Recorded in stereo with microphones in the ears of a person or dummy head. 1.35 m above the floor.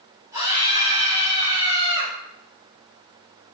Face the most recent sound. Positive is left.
turn(degrees=-15)  # may be behind; listen again after turning